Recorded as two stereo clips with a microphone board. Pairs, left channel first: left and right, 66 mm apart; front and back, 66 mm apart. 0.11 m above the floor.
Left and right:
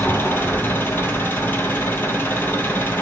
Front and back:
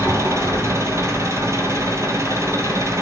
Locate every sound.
0.0 s an engine running: 145° left, 1.3 m